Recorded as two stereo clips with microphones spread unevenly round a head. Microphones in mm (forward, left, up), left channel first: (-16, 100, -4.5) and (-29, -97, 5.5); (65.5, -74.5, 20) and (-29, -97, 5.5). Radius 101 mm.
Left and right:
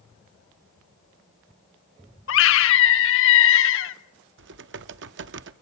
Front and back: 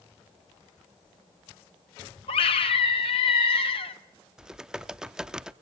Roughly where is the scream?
Ahead left.